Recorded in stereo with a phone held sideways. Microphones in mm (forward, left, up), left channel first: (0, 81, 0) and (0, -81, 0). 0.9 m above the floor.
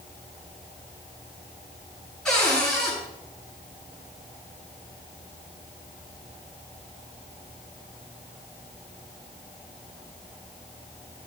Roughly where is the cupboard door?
Centre.